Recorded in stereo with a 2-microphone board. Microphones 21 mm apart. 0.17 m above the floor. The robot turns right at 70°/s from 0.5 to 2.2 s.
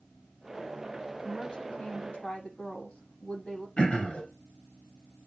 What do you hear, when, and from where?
1.2 s a woman speaking: 20° left, 7 m; by 3.7 s 90° left, 7 m
3.8 s throat clearing: 65° left (ahead or behind), 3 m